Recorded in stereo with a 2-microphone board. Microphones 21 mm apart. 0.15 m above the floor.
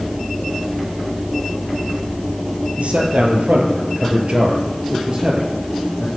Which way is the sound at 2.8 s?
70° right (ahead or behind).